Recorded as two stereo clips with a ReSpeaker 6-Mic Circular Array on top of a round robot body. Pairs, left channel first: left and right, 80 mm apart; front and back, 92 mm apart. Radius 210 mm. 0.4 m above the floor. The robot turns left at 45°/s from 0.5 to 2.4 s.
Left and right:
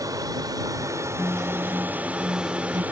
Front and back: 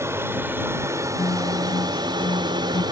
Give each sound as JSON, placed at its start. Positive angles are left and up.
{"t": 0.0, "sound": "an aircraft", "azimuth_deg": -125}
{"t": 1.2, "sound": "a guitar", "azimuth_deg": 10}